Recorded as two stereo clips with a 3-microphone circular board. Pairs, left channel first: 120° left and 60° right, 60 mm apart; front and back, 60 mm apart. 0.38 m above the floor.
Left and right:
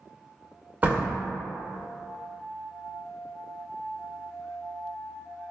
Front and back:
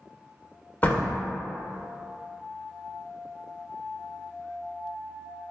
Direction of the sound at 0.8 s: 25° right.